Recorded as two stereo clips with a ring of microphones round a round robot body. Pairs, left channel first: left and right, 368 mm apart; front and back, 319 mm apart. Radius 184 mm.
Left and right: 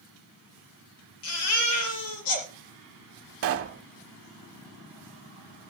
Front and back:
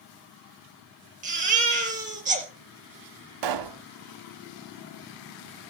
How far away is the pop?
About 0.8 m.